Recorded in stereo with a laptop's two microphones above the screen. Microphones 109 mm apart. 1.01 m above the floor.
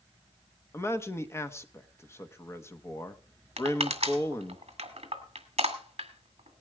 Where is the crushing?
65° right (ahead or behind), 2 m.